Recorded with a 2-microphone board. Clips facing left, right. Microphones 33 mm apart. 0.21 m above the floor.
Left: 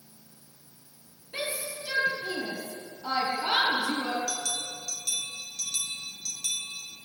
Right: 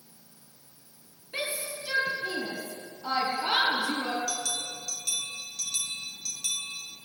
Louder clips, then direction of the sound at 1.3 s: Even; 15° right (ahead or behind).